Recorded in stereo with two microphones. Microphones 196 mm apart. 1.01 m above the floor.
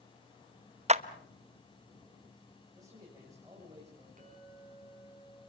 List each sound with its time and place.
0.9 s a clap: 35° right (ahead or behind), 0.8 m
2.8 s a man speaking: 15° right (ahead or behind), 7 m
4.2 s a clink: 40° right (ahead or behind), 7.5 m